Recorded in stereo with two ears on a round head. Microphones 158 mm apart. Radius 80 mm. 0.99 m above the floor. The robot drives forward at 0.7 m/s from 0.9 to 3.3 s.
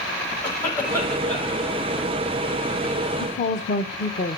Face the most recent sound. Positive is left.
turn(degrees=40)  # may be behind; listen again after turning